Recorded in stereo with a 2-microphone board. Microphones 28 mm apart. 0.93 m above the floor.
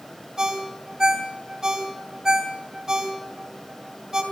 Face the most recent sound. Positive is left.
turn(degrees=-25)  # may be behind; listen again after turning